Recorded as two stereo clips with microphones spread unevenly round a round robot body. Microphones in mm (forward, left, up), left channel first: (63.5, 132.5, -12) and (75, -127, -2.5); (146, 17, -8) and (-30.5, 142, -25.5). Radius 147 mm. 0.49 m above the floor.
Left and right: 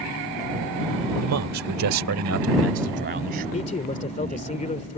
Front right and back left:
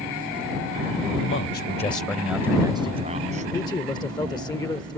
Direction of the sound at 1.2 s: 70° right.